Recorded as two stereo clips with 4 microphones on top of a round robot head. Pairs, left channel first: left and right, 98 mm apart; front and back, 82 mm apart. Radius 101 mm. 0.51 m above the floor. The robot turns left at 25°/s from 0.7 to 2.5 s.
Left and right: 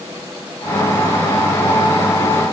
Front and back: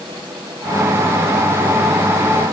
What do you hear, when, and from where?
Only background noise.